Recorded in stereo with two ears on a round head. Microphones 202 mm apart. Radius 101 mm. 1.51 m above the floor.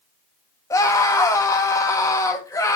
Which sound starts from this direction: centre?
A scream, at 0.7 s.